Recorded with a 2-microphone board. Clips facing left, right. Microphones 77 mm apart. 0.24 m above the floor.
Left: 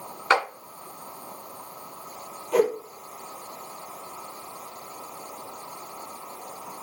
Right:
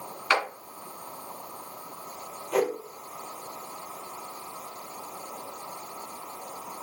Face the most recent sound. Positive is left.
turn(degrees=0)  # may be behind; listen again after turning